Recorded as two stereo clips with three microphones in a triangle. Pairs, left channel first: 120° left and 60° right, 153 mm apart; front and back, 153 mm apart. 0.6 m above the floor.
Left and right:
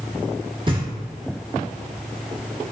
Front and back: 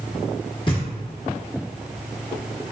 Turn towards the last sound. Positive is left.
turn(degrees=-30)